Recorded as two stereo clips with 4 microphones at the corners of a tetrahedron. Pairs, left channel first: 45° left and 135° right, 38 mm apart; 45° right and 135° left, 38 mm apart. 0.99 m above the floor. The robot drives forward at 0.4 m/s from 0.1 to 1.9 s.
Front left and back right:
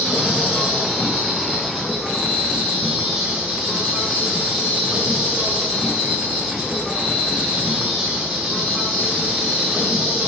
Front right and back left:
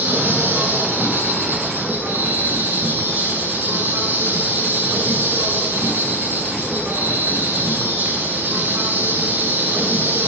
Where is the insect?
145° left, 7.5 m.